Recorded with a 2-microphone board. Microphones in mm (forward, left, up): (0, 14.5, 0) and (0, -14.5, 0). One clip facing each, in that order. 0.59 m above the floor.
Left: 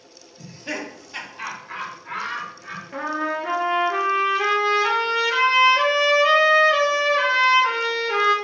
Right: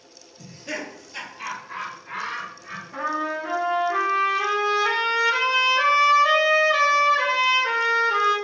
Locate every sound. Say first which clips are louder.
0.4 s laughter: left 2 dB; 35° left (ahead or behind), 1.2 m; by 2.8 s 65° left (ahead or behind), 2.5 m
2.9 s a trumpet: left 1 dB; 55° left (ahead or behind), 1.8 m